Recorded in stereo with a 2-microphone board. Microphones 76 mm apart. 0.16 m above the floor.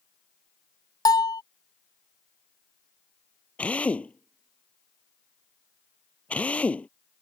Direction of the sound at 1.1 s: 60° left (ahead or behind).